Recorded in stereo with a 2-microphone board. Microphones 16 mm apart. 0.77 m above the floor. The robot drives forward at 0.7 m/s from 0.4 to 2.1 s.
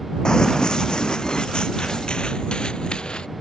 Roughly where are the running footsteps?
Left.